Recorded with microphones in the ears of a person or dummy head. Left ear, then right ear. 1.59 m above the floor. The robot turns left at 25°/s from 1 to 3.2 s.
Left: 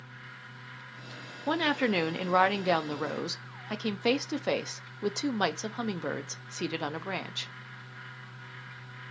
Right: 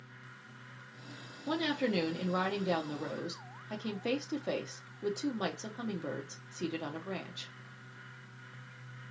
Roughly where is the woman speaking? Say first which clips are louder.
Left 5 dB; behind left.